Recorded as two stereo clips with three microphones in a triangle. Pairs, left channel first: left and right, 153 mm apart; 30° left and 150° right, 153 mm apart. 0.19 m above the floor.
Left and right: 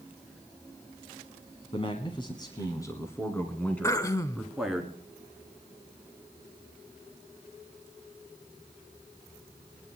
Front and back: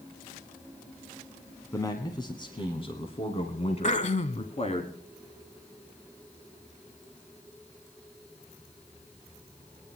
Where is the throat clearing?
30° left, 0.6 m.